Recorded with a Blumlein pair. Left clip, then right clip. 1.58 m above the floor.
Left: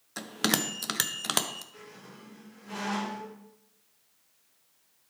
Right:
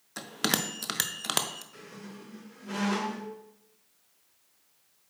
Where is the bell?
5° left, 0.6 m.